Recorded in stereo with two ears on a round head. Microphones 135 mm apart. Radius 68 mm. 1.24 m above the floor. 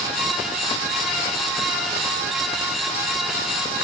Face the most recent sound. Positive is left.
No sound to turn to.